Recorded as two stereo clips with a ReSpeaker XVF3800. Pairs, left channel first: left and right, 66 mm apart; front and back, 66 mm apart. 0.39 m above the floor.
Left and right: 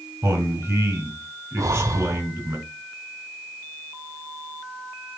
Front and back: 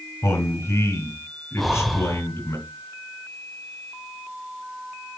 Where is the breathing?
90° right, 0.7 m.